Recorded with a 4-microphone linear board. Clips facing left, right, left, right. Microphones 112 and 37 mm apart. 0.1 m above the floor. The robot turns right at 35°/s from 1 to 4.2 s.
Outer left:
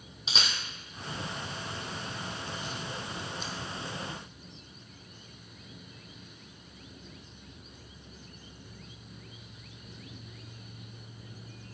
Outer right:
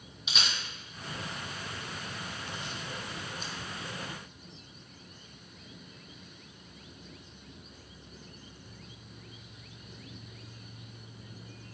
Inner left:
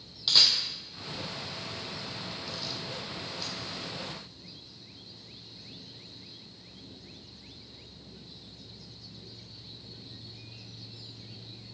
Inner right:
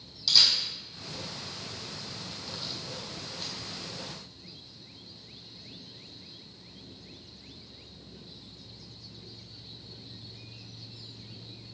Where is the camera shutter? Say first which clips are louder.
Outer left 1 dB, even; 35° left (ahead or behind), 0.9 m; by 3.5 s 50° right (ahead or behind), 0.9 m.